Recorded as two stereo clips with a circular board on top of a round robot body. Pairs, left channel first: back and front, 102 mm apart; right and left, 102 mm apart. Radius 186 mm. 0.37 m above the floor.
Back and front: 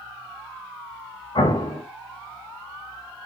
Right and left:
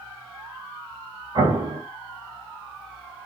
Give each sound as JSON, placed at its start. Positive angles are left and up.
{"t": 1.4, "sound": "an explosion", "azimuth_deg": 135, "distance_m": 1.6}